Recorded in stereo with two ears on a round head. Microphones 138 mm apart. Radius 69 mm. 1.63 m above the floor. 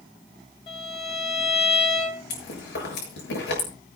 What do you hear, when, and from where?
0.7 s a violin: 40° left (ahead or behind), 4.5 m
2.3 s chewing: 85° left, 7.5 m